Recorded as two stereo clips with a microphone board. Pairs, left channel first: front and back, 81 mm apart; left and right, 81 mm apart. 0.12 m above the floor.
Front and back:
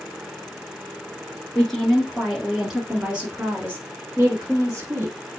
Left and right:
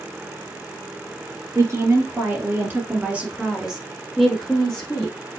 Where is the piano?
I don't hear a piano.